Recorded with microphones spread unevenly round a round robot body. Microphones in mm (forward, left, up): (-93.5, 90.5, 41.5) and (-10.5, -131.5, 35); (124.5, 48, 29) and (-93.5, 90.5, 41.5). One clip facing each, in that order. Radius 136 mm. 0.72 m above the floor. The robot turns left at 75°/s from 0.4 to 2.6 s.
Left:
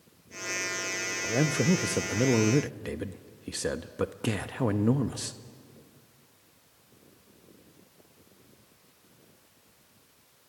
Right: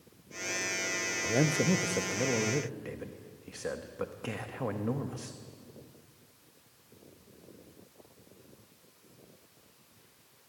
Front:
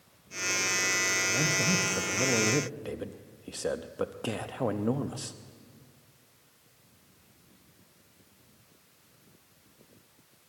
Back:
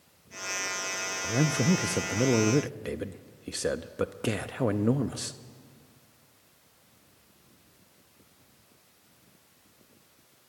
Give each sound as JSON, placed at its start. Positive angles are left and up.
{"t": 1.2, "sound": "a man speaking", "azimuth_deg": -150, "distance_m": 0.7}